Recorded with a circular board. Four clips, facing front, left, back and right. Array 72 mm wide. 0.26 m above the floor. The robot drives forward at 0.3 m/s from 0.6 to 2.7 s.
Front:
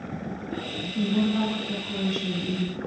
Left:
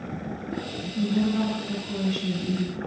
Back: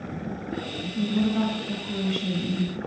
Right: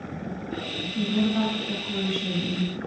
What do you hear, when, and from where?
0.9 s a woman speaking: 50° right, 0.9 m; by 2.8 s 135° right, 0.9 m